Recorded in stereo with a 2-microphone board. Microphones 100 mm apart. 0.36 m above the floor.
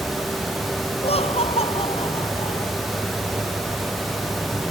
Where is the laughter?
85° left; by 2.7 s 80° left.